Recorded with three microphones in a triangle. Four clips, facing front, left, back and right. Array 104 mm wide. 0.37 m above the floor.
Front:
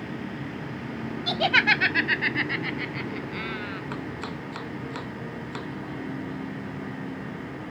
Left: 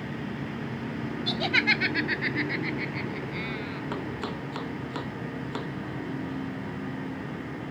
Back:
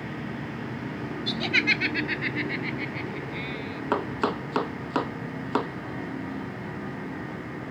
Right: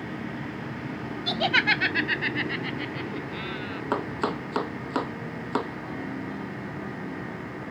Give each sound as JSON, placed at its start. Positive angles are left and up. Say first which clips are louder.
{"t": 1.3, "sound": "laughter", "louder": "right 3 dB, front 6 dB", "azimuth_deg": -30}
{"t": 3.9, "sound": "chopping", "louder": "right 9 dB, back 7 dB", "azimuth_deg": -145}